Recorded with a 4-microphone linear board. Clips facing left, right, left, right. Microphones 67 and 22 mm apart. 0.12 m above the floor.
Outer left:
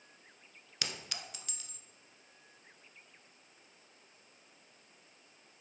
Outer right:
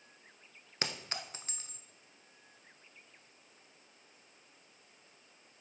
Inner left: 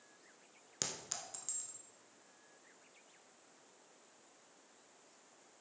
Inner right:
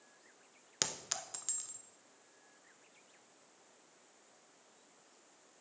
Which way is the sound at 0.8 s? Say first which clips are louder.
Outer right 3 dB, inner right 4 dB; 35° right (ahead or behind).